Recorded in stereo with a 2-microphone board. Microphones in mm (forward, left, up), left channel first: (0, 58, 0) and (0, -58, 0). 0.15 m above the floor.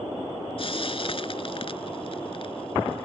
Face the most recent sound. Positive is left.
turn(degrees=50)  # may be behind; listen again after turning